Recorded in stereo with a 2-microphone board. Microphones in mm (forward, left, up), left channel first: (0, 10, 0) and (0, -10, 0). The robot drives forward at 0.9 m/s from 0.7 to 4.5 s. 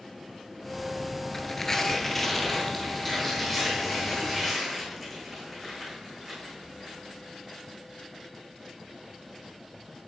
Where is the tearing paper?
25° left (ahead or behind), 0.7 m; by 7.0 s 5° left (ahead or behind), 3 m.